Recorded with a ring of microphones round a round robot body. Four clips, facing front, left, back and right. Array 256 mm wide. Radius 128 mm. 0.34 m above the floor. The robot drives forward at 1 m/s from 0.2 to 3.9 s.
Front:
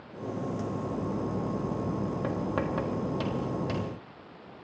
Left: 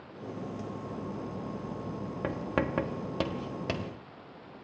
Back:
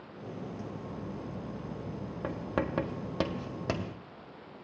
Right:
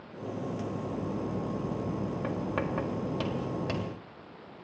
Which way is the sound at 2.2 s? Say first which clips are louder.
Left 4 dB, back 1 dB; 70° left.